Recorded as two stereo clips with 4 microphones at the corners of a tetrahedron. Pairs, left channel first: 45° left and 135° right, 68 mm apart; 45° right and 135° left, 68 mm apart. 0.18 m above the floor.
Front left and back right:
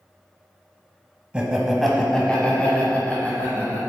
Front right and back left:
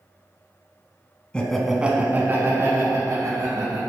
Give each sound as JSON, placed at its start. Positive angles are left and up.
{"t": 1.3, "sound": "laughter", "azimuth_deg": -90, "distance_m": 1.0}